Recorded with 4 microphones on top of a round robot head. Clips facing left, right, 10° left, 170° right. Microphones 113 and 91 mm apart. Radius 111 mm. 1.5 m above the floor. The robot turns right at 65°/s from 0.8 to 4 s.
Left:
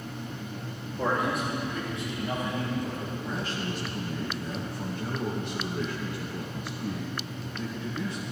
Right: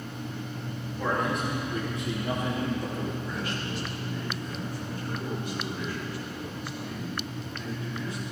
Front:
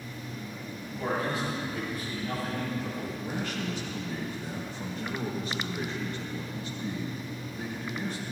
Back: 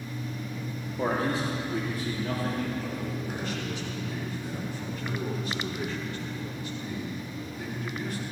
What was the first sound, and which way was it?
A man speaking, 155° left.